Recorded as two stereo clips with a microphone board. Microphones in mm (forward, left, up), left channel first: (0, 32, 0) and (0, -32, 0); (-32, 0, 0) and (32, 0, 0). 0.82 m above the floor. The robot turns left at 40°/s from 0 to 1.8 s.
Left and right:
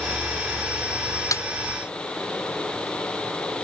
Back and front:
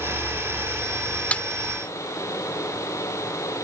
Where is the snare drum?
110° left; by 1.4 s 105° left.